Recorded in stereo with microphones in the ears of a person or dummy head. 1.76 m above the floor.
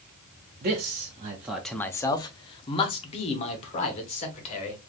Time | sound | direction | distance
0.6 | a man speaking | 35° right (ahead or behind) | 0.6 m